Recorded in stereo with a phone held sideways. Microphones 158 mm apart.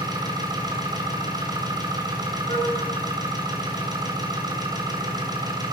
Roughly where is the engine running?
Right.